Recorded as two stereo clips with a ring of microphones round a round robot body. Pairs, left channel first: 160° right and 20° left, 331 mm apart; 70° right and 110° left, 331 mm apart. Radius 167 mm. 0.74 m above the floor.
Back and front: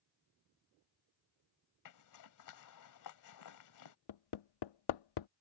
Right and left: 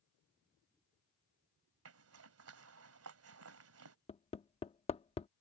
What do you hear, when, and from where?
1.9 s a zipper: 165° left
4.1 s hammering: 140° right